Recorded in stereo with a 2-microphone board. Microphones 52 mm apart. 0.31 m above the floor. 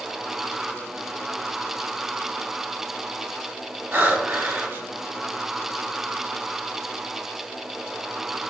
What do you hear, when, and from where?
3.9 s breathing: 40° right (ahead or behind), 1.3 m